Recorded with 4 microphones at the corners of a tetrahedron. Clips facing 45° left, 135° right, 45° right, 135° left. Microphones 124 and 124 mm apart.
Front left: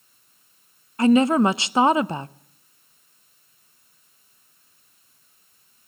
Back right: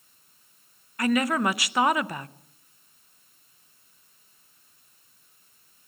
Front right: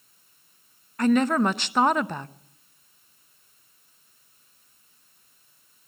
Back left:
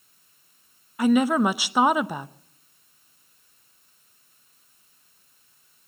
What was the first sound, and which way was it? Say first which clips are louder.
A woman speaking: front left 8 dB, back left 1 dB; 65° left.